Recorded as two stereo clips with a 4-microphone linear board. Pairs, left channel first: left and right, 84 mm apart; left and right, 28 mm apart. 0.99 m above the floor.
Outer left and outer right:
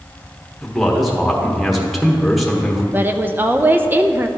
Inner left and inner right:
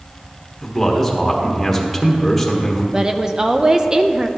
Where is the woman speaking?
25° right (ahead or behind), 0.5 m.